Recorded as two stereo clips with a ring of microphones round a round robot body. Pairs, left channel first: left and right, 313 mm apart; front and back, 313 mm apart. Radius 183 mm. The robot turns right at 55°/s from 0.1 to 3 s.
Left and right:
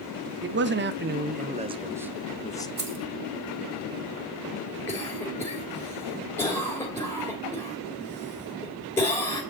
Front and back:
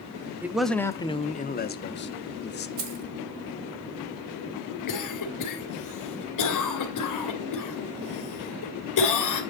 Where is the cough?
10° left, 2.5 m.